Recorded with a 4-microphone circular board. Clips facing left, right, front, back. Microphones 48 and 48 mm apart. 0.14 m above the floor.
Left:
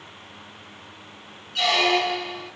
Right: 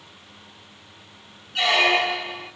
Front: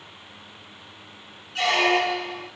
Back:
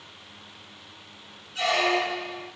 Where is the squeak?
30° right, 1.1 m.